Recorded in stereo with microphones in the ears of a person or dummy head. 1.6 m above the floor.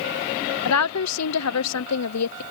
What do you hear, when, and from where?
0.7 s a woman speaking: 85° left